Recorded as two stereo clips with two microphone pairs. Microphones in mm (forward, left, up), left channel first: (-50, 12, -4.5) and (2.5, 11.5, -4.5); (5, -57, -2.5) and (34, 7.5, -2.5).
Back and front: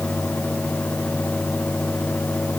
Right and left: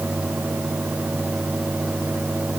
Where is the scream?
I don't hear a scream.